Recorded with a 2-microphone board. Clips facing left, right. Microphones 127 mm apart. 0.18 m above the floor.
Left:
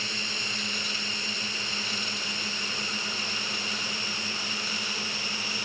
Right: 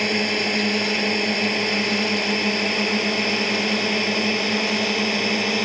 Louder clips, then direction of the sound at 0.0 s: Right 16 dB; 70° right (ahead or behind).